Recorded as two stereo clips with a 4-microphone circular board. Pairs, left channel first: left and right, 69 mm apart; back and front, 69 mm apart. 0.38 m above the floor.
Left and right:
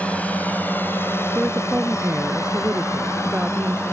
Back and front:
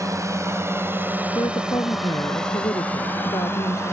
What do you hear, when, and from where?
0.0 s a drone: 25° left; by 3.9 s 135° left
1.4 s a woman speaking: 165° right